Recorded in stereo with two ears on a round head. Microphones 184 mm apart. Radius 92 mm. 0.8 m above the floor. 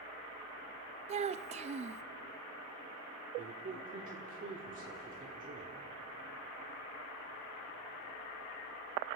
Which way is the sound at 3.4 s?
40° right (ahead or behind).